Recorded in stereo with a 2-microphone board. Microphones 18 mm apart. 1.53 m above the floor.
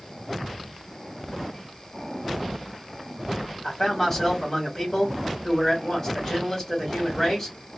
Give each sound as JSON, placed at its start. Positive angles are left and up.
{"t": 3.6, "sound": "a man speaking", "side_deg": 35, "distance_m": 2.5}